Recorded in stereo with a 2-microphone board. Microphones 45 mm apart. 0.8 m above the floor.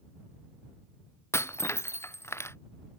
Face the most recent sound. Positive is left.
turn(degrees=70)  # may be behind; listen again after turning